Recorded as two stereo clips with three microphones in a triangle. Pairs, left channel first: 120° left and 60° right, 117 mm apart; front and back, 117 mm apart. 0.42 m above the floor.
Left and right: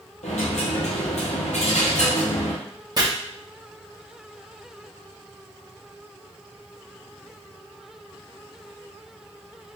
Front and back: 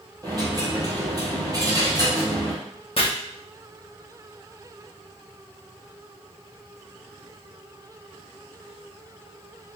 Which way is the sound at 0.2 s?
125° left.